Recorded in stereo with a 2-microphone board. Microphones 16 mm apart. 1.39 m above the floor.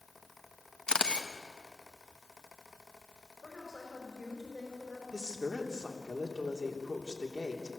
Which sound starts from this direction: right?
A woman speaking, at 5.1 s.